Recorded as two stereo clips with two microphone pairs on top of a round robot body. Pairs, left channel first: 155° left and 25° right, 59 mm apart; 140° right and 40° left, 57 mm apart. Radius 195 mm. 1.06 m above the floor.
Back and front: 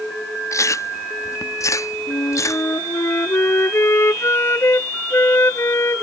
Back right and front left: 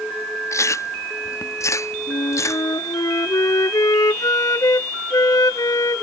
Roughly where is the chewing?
Behind.